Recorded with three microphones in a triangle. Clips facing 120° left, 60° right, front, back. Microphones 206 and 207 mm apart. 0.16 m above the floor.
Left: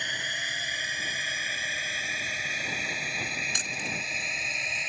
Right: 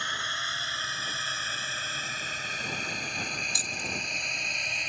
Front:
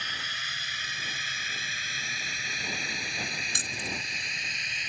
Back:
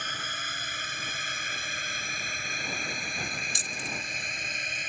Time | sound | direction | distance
0.0 | a drone | 175° right | ?
3.5 | keys jangling | 25° left | ?